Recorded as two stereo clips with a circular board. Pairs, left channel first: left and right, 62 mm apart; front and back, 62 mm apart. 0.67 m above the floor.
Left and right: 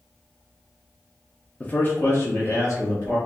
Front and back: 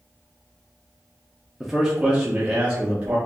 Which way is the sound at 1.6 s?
100° left.